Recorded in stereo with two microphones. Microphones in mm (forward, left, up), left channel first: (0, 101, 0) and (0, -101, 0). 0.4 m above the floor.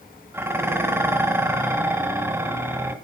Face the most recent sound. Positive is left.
turn(degrees=-10)  # may be behind; listen again after turning